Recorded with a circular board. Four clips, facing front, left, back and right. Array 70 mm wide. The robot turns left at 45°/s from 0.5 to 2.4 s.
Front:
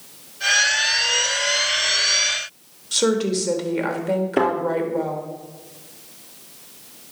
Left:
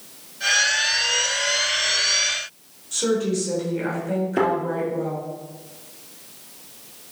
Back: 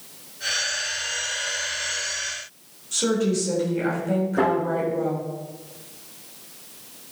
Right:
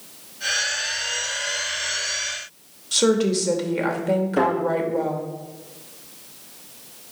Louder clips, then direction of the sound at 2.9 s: Right 3 dB, front 2 dB; 45° right.